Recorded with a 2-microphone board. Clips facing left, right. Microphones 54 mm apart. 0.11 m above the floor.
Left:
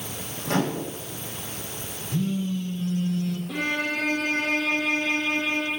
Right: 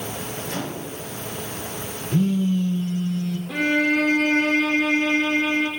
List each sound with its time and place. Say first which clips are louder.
0.5 s a microwave: left 8 dB; 75° left (ahead or behind), 6.5 m
2.1 s a phone buzzing: right 6 dB; 65° right (ahead or behind), 4.5 m
3.5 s a violin: right 9 dB; 60° right (ahead or behind), 3.5 m